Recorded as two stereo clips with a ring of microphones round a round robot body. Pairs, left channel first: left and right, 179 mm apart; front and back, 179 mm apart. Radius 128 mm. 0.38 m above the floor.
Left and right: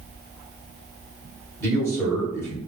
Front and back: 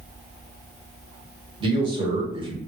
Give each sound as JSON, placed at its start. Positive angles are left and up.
{"t": 1.6, "sound": "a man speaking", "azimuth_deg": 155, "distance_m": 1.1}